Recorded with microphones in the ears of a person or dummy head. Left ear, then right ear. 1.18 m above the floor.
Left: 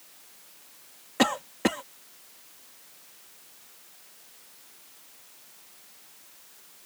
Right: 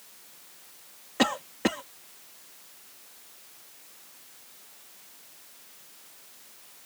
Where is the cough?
5° left (ahead or behind).